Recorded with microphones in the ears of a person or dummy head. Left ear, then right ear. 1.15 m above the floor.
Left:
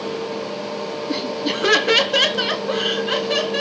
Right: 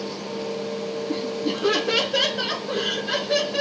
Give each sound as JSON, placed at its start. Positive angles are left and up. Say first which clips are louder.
{"t": 1.1, "sound": "laughter", "louder": "left 5 dB", "side_deg": 50, "distance_m": 0.8}